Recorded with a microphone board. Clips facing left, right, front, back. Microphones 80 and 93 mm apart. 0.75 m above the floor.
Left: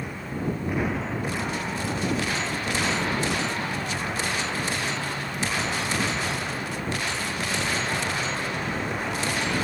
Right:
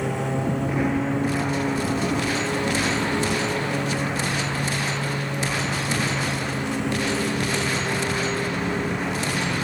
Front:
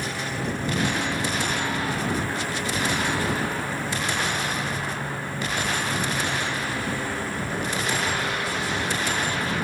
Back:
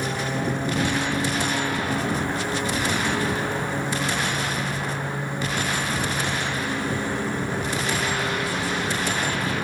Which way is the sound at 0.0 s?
110° right.